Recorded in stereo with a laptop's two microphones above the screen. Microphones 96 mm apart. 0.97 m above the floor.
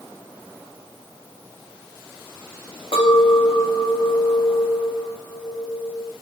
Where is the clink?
70° left (ahead or behind), 0.7 m.